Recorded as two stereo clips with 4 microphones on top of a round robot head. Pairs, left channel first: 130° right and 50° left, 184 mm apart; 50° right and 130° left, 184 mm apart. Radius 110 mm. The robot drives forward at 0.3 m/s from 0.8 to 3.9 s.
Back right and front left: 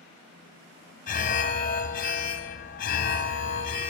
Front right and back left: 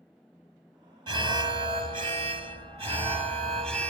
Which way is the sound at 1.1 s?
165° right.